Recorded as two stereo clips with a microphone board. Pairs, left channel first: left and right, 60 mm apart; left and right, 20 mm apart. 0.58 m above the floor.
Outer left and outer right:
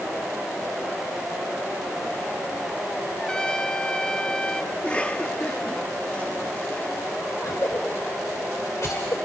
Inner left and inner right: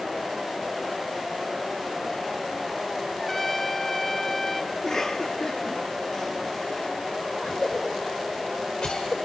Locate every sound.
3.2 s a trumpet: 15° left (ahead or behind), 0.9 m
4.7 s a cough: 20° left (ahead or behind), 1.1 m
7.4 s a cough: 55° left (ahead or behind), 1.8 m